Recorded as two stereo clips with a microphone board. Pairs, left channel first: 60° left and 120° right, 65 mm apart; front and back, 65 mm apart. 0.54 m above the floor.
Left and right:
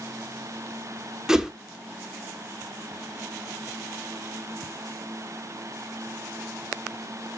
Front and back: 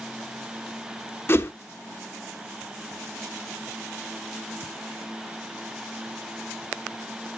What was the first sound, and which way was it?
A whoosh, 40° right.